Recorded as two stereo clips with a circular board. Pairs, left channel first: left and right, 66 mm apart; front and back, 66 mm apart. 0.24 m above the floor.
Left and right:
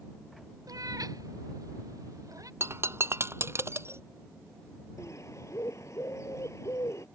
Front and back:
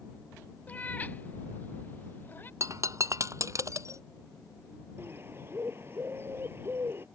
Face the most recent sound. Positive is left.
turn(degrees=130)